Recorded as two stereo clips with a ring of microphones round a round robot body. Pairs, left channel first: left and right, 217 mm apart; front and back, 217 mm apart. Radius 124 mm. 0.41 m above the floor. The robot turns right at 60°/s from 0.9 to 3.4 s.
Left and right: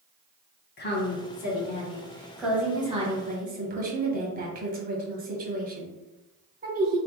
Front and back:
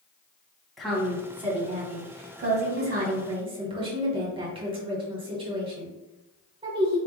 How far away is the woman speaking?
About 1.5 m.